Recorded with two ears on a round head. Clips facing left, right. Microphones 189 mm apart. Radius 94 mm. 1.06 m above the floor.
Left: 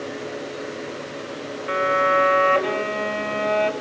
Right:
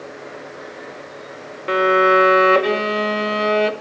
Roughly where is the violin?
Right.